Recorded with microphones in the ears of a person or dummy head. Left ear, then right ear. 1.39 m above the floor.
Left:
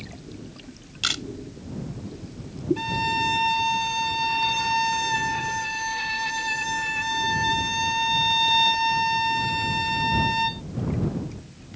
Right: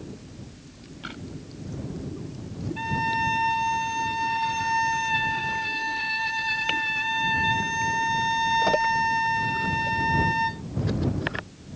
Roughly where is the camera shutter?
Left.